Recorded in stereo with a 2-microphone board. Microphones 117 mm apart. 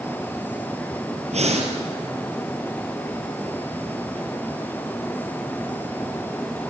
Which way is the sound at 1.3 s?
70° right (ahead or behind).